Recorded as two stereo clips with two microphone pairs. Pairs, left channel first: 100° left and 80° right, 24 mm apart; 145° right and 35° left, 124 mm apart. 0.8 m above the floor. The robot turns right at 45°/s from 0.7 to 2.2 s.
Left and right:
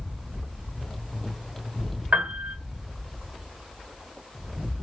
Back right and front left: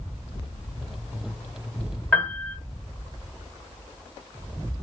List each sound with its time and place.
2.1 s a piano: 70° right, 1.3 m; by 2.6 s 65° right, 1.3 m